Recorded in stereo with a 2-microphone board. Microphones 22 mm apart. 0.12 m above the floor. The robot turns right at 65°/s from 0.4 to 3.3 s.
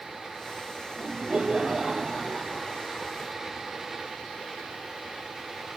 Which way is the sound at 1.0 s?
75° right.